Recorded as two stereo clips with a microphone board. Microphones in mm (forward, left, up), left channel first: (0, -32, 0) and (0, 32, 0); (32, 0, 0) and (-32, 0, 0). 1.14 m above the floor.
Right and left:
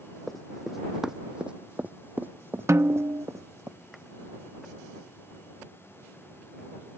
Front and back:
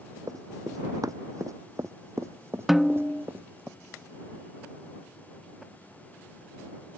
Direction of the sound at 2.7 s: 95° left.